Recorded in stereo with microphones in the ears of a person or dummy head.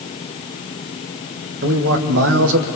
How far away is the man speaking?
About 2.5 m.